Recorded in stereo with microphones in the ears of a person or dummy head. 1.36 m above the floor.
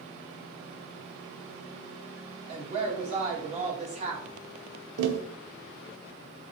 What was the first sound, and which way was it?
A woman speaking, 35° right (ahead or behind).